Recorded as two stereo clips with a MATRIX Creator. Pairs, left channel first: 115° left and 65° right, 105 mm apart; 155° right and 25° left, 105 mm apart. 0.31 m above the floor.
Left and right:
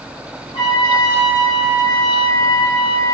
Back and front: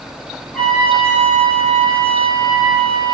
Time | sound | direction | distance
0.5 | a trumpet | 120° left | 3.5 m